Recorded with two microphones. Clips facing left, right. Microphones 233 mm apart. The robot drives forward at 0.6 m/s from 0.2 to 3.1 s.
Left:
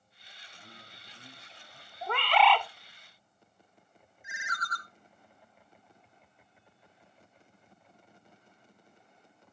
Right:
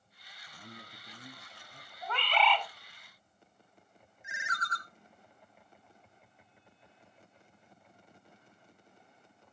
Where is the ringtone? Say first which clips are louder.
Even; 25° right (ahead or behind), 1.0 m.